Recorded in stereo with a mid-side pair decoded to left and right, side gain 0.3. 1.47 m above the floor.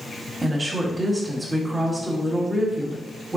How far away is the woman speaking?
About 1.6 m.